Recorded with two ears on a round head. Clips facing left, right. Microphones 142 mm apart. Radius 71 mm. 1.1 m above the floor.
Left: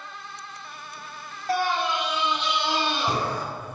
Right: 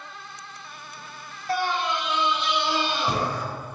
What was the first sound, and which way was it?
A scream, 40° left (ahead or behind).